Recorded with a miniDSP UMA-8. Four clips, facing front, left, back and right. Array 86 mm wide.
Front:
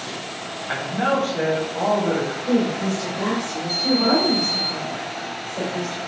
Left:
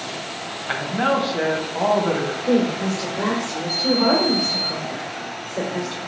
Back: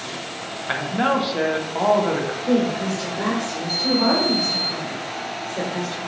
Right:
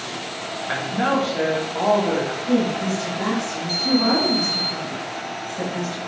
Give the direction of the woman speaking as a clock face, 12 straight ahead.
8 o'clock.